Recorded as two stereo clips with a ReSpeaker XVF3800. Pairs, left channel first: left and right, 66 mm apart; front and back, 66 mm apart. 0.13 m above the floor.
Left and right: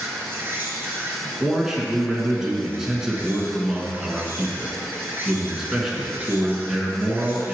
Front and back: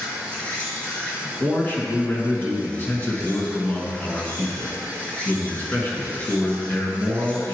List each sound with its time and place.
0.0 s an insect: 55° right, 2 m
1.4 s a man speaking: 15° right, 1.3 m